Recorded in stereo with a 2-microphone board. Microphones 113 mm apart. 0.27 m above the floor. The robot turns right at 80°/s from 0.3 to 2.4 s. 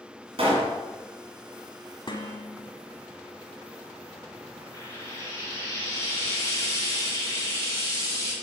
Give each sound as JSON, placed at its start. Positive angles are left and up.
{"t": 0.4, "sound": "a pop", "azimuth_deg": -105, "distance_m": 2.0}
{"t": 2.1, "sound": "dishes clattering", "side_deg": 45, "distance_m": 1.1}
{"t": 4.7, "sound": "frying", "side_deg": 25, "distance_m": 2.0}